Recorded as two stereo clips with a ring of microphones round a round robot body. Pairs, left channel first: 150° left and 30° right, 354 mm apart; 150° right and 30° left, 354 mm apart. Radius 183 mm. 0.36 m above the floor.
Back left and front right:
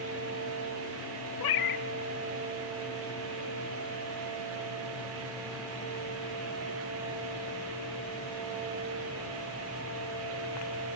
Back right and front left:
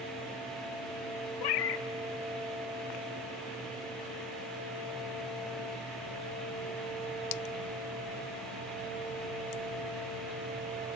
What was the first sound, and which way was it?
A cat meowing, 175° right.